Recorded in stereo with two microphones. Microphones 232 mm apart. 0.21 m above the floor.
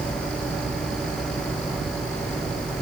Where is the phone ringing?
No phone ringing in this recording.